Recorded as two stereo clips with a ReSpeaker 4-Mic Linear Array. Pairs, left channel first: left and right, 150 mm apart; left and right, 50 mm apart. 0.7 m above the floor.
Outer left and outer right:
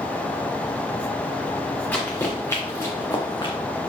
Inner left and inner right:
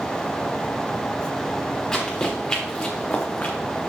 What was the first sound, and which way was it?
Running footsteps, 10° left (ahead or behind).